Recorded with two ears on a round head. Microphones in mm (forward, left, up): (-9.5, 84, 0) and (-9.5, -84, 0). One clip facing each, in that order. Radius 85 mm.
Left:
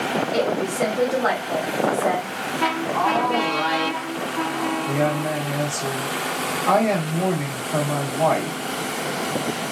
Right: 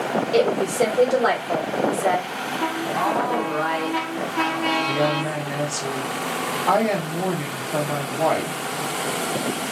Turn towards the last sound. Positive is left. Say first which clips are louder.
# left 1 dB
turn(degrees=-5)  # may be behind; listen again after turning